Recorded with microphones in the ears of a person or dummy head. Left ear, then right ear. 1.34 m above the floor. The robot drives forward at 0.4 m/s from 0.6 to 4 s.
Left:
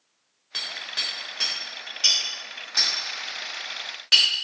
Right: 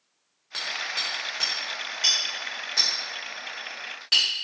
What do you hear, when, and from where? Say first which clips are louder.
0.5 s hammering: even; 15° right (ahead or behind), 0.6 m; by 4.2 s 5° right (ahead or behind), 2.0 m